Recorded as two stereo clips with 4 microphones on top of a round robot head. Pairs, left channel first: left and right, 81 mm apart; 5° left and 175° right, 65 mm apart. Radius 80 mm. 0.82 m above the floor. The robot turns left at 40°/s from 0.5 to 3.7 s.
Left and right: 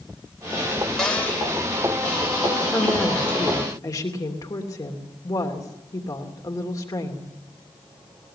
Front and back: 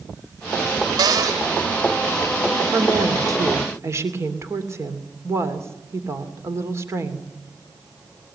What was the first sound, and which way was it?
A cupboard door, 175° left.